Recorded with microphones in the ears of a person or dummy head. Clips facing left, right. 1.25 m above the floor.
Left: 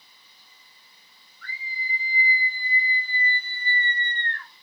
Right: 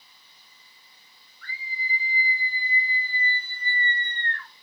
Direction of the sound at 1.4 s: 75° left (ahead or behind).